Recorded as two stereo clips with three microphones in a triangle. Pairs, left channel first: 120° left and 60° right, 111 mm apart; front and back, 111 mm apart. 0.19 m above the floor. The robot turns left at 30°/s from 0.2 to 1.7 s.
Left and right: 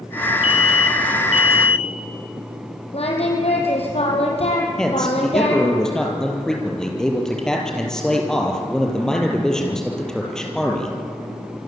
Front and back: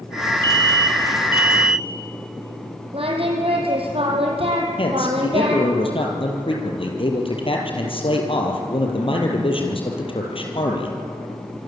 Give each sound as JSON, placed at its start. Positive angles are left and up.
{"t": 0.4, "sound": "an alarm", "azimuth_deg": 135, "distance_m": 1.5}
{"t": 2.9, "sound": "singing", "azimuth_deg": 145, "distance_m": 5.5}
{"t": 4.8, "sound": "a man speaking", "azimuth_deg": 35, "distance_m": 5.5}